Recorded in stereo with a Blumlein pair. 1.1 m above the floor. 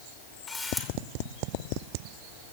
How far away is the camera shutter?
About 3 m.